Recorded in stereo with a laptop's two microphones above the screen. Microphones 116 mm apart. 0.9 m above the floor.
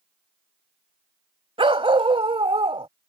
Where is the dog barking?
50° right (ahead or behind).